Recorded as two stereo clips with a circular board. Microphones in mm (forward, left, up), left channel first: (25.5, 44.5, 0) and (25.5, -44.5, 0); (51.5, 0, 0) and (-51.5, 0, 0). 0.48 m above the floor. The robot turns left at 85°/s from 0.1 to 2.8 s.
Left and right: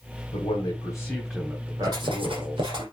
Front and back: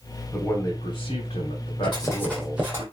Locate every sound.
0.3 s a man speaking: 90° left, 3 m; by 2.8 s 120° right, 3 m
1.8 s writing: 35° right, 4.5 m; by 2.8 s 120° right, 4.5 m